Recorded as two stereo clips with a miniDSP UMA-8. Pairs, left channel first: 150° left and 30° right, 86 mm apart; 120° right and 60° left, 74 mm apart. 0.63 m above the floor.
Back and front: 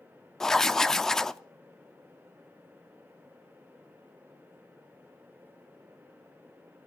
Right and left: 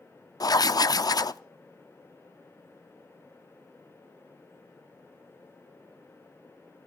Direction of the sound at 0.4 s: 125° right.